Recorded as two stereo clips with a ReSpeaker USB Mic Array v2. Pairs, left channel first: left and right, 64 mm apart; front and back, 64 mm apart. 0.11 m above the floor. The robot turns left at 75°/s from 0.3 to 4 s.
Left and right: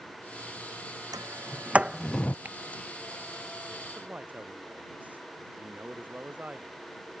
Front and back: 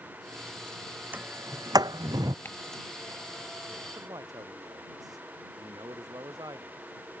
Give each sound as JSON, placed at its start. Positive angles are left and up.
{"t": 1.1, "sound": "a sliding door", "azimuth_deg": -115}
{"t": 2.5, "sound": "ticking", "azimuth_deg": -35}
{"t": 4.0, "sound": "a man speaking", "azimuth_deg": -150}